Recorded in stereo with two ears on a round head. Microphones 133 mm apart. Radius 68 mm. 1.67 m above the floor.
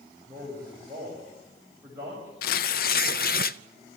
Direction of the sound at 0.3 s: 20° right (ahead or behind).